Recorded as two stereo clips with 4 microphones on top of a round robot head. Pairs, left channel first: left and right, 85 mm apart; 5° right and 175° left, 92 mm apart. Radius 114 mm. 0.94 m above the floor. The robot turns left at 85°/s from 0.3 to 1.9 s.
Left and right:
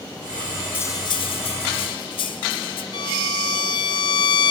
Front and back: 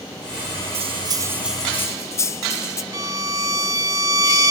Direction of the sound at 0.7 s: 155° left.